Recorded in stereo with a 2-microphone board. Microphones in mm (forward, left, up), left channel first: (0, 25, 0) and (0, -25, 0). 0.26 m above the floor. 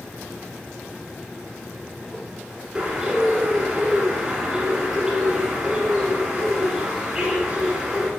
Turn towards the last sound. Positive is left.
turn(degrees=-20)  # may be behind; listen again after turning